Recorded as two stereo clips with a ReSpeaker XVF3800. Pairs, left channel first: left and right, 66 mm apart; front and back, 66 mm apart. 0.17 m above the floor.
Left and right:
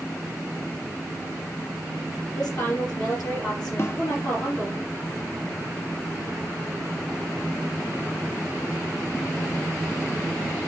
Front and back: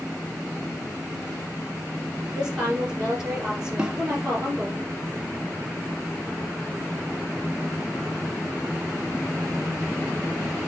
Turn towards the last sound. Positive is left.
turn(degrees=110)